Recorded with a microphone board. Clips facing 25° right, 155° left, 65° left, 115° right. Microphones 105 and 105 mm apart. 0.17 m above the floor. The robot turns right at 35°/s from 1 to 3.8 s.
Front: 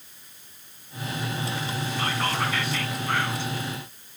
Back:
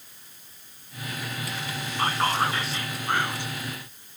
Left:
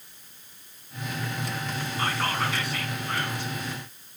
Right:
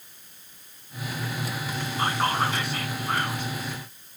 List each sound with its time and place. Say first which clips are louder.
2.0 s whispering: back 4 dB, right 4 dB; straight behind, 1.9 m; by 3.5 s 125° right, 1.9 m